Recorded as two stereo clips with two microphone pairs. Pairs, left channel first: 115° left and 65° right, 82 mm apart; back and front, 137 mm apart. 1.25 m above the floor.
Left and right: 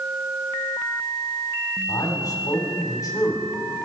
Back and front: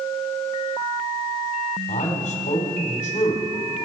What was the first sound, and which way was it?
A man speaking, 160° left.